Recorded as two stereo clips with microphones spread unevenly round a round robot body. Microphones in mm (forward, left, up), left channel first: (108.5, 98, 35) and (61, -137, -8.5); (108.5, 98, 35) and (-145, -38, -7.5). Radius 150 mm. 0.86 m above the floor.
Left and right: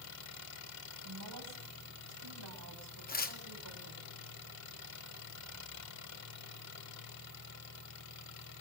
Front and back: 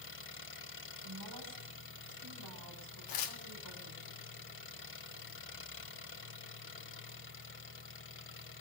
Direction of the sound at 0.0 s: 75° left.